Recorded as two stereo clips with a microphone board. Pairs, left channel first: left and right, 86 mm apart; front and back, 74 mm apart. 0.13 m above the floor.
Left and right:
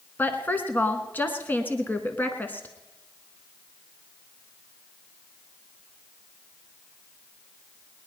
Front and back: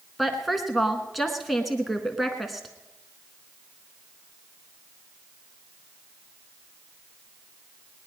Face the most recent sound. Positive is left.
turn(degrees=90)